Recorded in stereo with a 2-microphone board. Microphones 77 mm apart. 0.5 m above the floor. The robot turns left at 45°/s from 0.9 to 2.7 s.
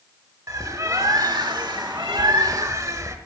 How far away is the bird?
About 1.2 m.